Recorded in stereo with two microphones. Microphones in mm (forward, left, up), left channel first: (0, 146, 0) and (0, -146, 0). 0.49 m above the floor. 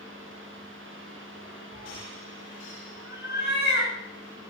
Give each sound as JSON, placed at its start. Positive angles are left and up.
{"t": 1.7, "sound": "a cat meowing", "side_deg": -55, "distance_m": 4.0}